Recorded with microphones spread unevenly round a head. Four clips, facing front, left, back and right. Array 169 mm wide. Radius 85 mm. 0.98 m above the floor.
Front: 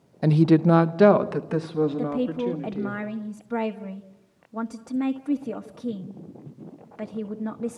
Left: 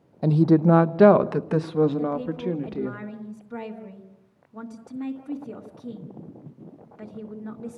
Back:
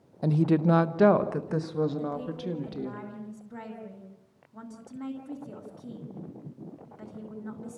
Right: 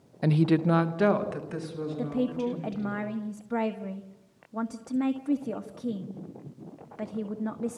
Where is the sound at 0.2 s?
25° left, 0.8 m; by 3.0 s 80° left, 2 m.